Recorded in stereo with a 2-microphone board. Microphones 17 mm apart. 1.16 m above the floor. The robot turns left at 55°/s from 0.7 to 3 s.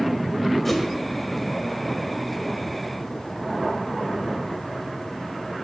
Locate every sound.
0.7 s a whoosh: 15° left (ahead or behind), 2 m; by 0.8 s 5° left (ahead or behind), 2 m